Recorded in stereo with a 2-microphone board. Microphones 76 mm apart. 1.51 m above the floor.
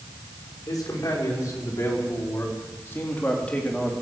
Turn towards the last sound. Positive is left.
turn(degrees=10)  # may be behind; listen again after turning